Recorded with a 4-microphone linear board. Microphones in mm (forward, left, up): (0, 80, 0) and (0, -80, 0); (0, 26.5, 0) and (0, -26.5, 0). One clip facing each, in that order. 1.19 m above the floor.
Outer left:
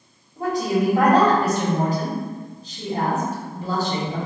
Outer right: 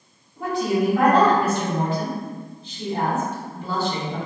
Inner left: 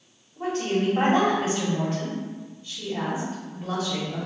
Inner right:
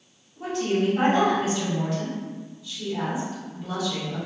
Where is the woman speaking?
40° left (ahead or behind), 1.1 m.